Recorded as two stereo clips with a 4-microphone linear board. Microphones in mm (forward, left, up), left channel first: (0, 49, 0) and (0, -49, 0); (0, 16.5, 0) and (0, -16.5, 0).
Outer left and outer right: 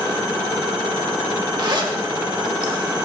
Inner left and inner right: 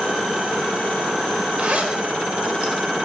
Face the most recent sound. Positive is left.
turn(degrees=-50)  # may be behind; listen again after turning